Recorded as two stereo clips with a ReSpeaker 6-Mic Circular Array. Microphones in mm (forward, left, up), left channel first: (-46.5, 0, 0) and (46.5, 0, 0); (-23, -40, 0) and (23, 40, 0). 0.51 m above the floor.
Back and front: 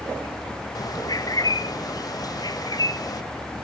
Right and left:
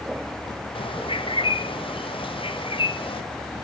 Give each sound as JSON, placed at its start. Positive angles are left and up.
{"t": 0.8, "sound": "a bird", "azimuth_deg": -135, "distance_m": 1.2}